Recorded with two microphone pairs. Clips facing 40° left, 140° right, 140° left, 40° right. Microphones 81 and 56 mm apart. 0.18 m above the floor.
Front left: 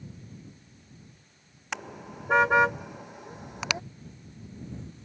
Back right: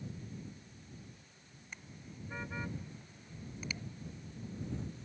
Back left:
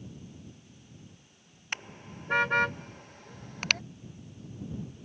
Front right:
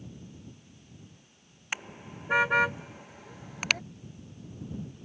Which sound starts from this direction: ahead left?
A car horn, at 1.7 s.